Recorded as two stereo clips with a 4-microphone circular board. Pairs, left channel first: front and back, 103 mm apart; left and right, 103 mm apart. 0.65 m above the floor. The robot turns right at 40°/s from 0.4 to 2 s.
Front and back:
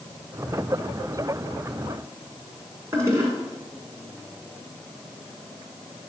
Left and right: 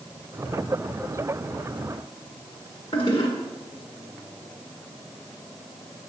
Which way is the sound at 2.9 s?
120° left.